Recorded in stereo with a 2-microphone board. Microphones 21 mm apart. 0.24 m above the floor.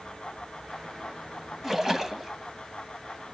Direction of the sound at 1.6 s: 15° right (ahead or behind).